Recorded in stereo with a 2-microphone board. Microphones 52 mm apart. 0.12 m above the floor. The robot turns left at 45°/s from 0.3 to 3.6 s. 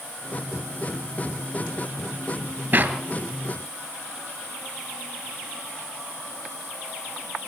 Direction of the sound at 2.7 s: 35° right (ahead or behind).